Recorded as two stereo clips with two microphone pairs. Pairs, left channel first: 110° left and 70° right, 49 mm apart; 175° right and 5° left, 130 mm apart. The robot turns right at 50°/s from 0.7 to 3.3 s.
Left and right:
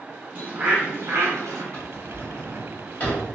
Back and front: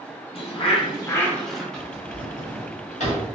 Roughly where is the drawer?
Left.